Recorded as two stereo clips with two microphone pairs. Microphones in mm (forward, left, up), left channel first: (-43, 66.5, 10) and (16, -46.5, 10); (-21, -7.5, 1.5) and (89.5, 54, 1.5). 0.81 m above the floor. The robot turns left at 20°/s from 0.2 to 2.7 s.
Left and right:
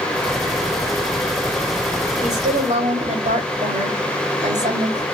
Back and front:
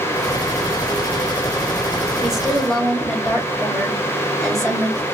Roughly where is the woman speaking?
Ahead right.